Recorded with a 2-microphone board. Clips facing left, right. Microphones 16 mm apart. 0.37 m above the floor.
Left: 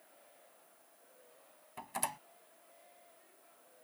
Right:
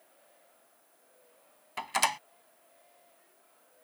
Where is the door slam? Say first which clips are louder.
Right 11 dB; 70° right (ahead or behind).